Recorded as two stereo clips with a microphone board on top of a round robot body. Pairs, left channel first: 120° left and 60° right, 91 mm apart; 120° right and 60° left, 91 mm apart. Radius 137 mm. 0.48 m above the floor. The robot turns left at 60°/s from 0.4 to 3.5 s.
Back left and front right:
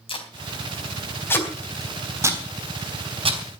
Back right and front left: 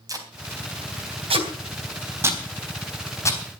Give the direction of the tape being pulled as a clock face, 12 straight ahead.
8 o'clock.